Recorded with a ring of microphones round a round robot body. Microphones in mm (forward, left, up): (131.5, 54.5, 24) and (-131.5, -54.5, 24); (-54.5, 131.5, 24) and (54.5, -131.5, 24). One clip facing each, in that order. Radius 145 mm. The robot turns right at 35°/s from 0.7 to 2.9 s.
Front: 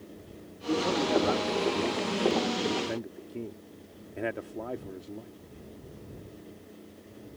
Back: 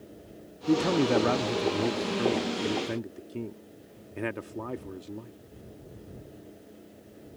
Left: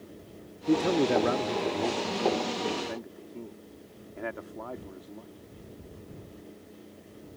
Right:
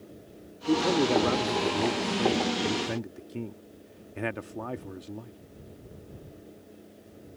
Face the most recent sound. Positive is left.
turn(degrees=-90)